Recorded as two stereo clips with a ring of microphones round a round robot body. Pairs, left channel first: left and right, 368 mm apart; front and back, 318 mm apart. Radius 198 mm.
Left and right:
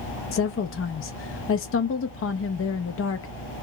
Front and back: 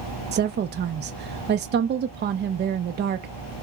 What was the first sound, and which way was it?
A woman speaking, 130° left.